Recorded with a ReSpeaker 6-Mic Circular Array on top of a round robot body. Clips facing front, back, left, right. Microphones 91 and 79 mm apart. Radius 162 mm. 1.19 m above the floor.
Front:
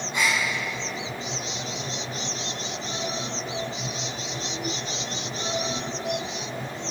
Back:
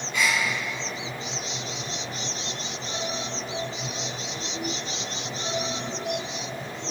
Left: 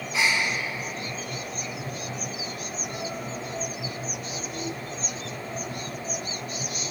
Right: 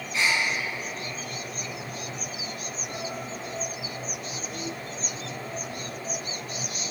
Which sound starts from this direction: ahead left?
A gasp, at 0.1 s.